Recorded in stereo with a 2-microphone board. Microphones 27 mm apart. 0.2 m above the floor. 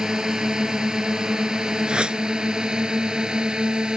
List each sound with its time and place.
0.0 s a drone: 20° right (ahead or behind); by 4.0 s 30° right (ahead or behind)
1.9 s a whoosh: 35° right (ahead or behind)